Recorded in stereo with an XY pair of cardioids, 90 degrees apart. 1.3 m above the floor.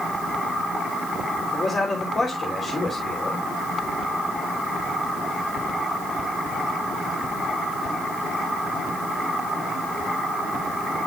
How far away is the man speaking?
About 3 m.